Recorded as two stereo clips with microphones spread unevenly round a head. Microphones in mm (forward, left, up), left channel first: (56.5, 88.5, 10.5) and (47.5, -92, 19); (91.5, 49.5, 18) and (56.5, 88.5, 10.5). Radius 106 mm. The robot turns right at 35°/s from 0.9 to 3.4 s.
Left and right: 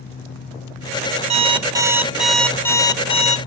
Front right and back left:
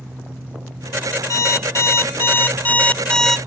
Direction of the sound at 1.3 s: 40° right.